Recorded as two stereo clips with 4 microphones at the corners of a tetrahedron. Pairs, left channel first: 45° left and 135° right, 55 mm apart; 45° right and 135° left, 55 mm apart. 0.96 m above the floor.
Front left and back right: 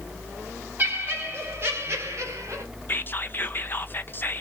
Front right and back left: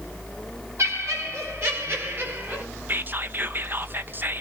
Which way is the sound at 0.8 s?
170° left.